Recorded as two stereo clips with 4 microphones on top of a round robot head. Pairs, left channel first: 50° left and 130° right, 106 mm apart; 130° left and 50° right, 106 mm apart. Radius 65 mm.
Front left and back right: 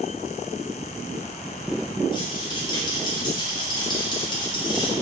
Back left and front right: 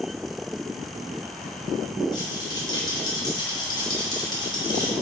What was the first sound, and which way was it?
A rattle, 90° left.